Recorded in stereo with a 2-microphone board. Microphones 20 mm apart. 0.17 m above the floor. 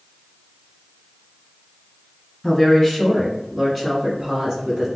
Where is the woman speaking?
15° left (ahead or behind), 2.0 m; by 4.9 s 35° right (ahead or behind), 1.7 m.